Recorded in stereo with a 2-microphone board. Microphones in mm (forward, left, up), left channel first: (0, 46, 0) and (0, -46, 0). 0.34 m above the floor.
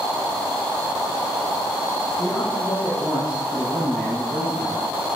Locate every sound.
2.2 s a man speaking: 40° left (ahead or behind), 6.5 m; by 4.8 s 25° left (ahead or behind), 9.5 m